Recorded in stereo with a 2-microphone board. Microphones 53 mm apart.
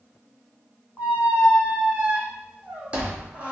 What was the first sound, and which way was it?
A squeak, 25° right (ahead or behind).